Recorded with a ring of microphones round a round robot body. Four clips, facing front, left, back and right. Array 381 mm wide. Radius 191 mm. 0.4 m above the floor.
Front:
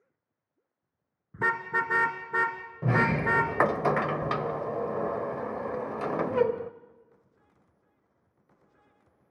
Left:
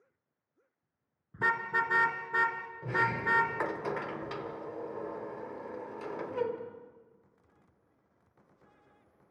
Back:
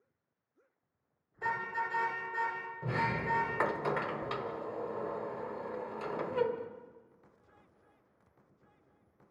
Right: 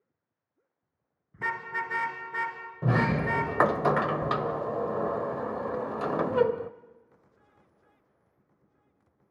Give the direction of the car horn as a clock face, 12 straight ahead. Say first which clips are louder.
Left 2 dB, front 6 dB; 12 o'clock.